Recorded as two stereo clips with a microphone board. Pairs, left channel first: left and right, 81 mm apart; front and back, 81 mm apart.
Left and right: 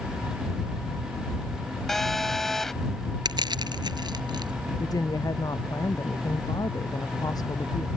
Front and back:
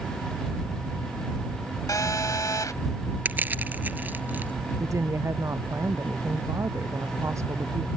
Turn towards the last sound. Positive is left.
turn(degrees=125)